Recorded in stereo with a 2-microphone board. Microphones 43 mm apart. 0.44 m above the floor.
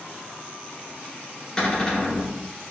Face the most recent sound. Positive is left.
turn(degrees=25)  # may be behind; listen again after turning